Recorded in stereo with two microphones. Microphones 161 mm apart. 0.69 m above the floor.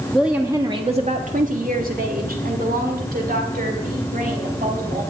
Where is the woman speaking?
Centre (ahead or behind), 1.1 m; by 5.0 s 60° right (ahead or behind), 4.5 m.